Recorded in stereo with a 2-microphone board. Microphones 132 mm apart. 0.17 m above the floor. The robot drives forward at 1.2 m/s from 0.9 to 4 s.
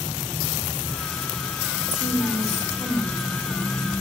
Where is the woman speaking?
Centre (ahead or behind), 4 m.